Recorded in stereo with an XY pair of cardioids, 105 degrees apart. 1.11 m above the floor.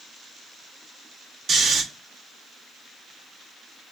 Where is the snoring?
55° right, 1.1 m.